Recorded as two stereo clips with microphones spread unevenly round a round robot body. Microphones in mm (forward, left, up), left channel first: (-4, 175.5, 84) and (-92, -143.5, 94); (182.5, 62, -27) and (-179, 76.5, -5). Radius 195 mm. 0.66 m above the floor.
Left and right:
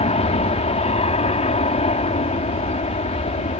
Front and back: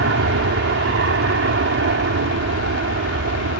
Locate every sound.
0.0 s an aircraft: 140° left